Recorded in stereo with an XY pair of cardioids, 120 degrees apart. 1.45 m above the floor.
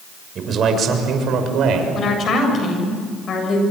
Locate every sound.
0.3 s a man speaking: 45° right, 6.5 m; by 1.9 s 65° right, 6 m
1.9 s a woman speaking: 45° left, 7.5 m